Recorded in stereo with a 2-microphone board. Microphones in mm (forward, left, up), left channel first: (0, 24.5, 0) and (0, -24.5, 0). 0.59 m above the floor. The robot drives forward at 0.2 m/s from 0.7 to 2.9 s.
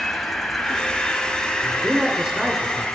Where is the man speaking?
15° right (ahead or behind), 1.8 m.